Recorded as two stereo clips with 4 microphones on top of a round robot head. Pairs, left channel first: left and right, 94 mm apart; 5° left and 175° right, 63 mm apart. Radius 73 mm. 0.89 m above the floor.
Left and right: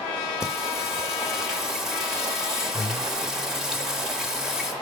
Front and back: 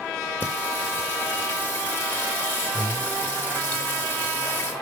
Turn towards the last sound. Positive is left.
turn(degrees=-15)